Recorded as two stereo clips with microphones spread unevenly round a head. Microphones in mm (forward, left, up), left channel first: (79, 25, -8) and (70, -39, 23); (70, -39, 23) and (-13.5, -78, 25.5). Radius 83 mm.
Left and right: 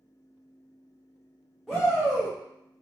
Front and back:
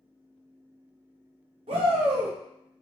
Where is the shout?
165° left, 1.2 m.